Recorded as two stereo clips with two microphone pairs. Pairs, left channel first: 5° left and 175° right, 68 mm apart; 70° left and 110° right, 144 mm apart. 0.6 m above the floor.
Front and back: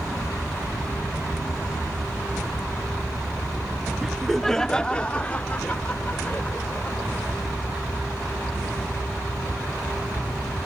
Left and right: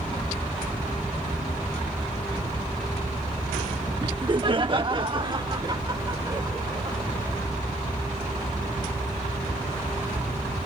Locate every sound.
4.0 s laughter: 105° right; by 7.3 s 50° right